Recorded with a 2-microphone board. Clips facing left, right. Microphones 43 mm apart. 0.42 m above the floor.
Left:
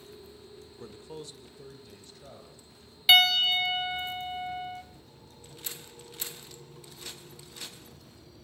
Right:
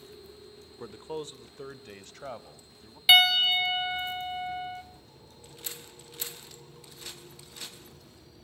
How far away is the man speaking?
About 0.8 m.